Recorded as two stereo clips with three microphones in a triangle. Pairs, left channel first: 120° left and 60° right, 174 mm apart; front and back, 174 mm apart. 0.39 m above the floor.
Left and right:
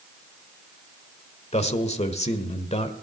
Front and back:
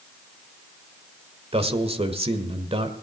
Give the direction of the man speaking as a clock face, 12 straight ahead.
7 o'clock.